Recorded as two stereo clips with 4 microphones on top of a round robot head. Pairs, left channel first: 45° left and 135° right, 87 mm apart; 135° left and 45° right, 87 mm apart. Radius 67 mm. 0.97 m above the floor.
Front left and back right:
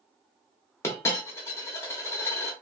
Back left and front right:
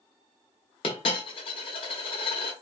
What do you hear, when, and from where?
0.8 s a dropped coin: 105° left, 0.7 m